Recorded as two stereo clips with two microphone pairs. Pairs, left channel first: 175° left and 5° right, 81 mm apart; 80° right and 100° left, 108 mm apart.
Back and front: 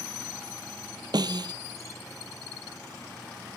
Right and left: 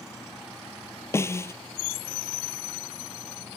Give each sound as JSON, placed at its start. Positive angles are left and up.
{"t": 1.1, "sound": "a snare drum", "azimuth_deg": -15}